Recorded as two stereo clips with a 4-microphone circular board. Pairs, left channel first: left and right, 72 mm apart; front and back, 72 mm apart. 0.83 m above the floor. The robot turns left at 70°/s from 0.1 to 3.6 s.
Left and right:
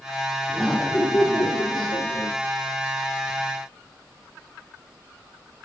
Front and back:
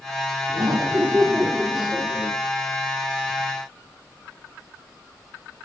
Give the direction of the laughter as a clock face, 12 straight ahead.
6 o'clock.